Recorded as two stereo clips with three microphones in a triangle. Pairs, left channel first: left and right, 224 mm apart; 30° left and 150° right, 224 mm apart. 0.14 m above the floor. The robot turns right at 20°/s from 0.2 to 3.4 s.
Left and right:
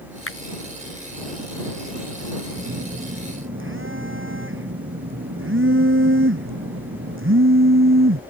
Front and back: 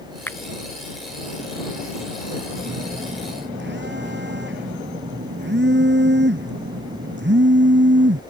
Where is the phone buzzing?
130° right; by 8.2 s 115° right.